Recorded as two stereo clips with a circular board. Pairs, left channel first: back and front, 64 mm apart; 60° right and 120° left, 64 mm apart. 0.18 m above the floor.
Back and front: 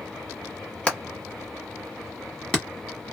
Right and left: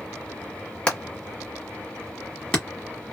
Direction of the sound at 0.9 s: 120° right.